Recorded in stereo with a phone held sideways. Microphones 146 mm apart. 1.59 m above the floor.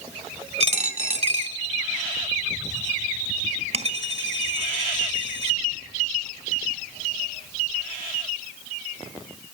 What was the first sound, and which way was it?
A dropped coin, 45° right (ahead or behind).